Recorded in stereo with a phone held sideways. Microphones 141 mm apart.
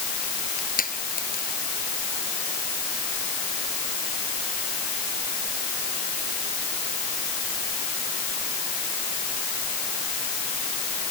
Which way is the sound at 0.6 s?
90° left.